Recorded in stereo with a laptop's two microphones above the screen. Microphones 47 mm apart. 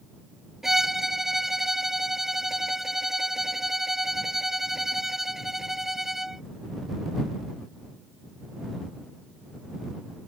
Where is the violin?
10° right (ahead or behind).